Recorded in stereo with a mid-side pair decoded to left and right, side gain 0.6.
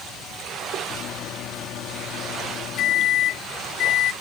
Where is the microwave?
55° left.